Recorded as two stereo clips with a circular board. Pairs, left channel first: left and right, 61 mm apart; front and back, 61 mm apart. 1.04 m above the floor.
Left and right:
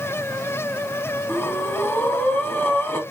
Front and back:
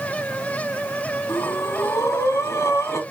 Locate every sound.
1.3 s breathing: 35° left, 2 m